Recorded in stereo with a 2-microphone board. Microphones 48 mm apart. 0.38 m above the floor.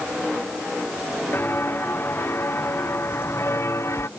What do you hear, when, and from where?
1.3 s footsteps: 45° left (ahead or behind); by 4.1 s 60° left (ahead or behind)